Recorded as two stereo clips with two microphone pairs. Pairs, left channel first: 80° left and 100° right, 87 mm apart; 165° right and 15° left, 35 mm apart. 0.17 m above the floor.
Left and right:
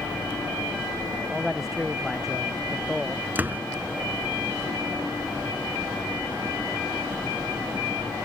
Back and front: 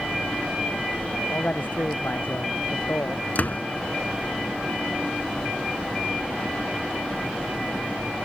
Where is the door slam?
160° right.